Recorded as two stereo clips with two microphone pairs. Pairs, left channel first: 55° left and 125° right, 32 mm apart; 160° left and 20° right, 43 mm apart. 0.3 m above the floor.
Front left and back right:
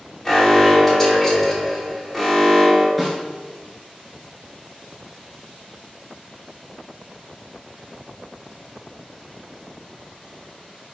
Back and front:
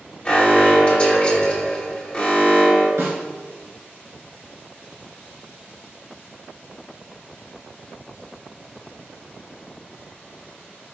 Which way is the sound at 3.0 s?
25° right.